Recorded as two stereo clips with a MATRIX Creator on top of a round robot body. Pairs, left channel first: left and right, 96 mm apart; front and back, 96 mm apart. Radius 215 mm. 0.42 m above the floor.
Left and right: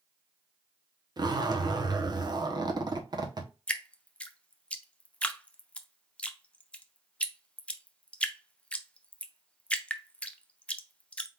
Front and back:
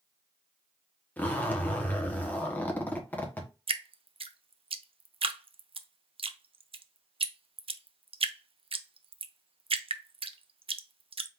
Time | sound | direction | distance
1.2 | a zipper | 65° right | 1.4 m
3.7 | dripping | 165° left | 0.7 m